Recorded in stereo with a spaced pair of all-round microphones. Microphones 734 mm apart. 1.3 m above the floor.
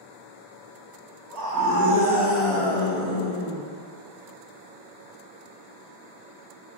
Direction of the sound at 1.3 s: 25° right (ahead or behind).